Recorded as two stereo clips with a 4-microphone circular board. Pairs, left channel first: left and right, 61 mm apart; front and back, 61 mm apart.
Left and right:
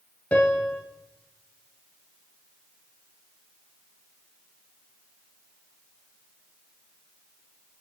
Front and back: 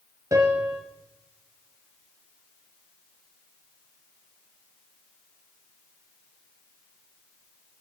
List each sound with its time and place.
0.3 s a piano: 155° left, 2.0 m